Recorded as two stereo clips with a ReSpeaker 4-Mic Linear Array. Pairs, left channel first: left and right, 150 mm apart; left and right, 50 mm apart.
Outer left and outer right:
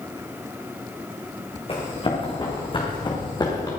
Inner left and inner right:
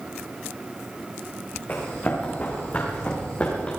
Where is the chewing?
No chewing in this recording.